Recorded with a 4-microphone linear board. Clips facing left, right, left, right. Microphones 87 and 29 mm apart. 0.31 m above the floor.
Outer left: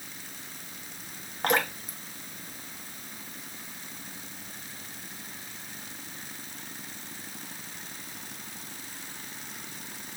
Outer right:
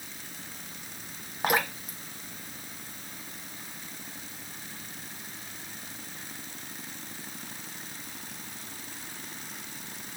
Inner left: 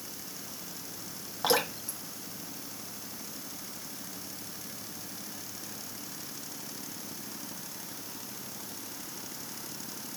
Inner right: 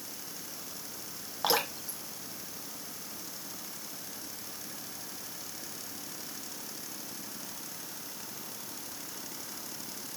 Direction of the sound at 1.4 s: 5° right (ahead or behind).